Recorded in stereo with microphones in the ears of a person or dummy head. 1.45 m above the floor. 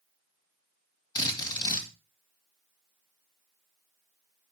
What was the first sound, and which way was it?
A drill, 20° left (ahead or behind).